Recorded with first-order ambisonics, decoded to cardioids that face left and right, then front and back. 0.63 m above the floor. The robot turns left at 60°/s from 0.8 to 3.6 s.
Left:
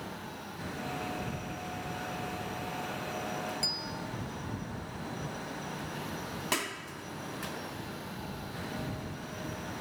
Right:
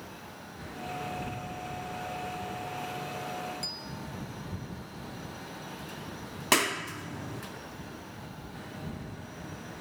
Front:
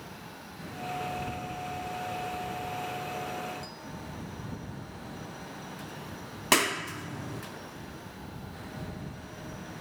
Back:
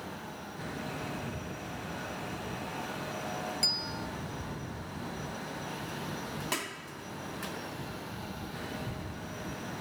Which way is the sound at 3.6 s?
165° left.